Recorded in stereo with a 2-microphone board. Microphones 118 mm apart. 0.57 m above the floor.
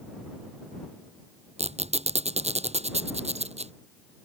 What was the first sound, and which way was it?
A squeak, 70° right (ahead or behind).